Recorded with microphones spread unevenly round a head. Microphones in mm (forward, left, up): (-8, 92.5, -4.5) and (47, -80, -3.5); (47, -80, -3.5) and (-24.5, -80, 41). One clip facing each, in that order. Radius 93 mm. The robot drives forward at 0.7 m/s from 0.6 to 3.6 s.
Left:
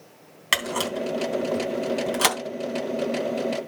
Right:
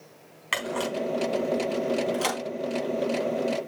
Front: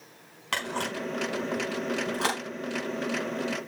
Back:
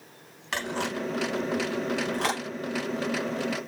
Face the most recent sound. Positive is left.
turn(degrees=110)